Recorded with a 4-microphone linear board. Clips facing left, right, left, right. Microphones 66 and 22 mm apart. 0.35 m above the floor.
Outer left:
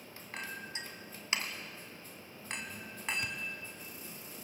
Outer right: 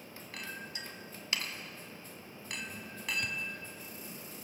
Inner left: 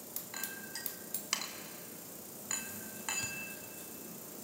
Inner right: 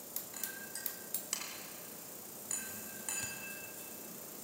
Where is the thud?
10° left (ahead or behind), 1.0 m.